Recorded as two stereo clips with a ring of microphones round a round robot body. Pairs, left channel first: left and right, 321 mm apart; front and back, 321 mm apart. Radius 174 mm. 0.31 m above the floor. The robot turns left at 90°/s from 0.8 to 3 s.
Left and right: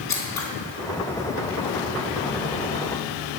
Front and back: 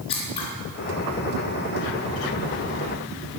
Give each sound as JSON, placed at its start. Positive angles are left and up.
{"t": 0.1, "sound": "scissors", "azimuth_deg": 75, "distance_m": 3.5}